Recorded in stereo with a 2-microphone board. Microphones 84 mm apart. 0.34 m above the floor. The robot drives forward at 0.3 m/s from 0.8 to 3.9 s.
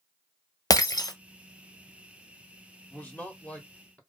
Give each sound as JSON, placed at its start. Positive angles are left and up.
{"t": 0.7, "sound": "breaking glass", "side_deg": 45, "distance_m": 0.6}
{"t": 2.9, "sound": "a man speaking", "side_deg": 15, "distance_m": 1.1}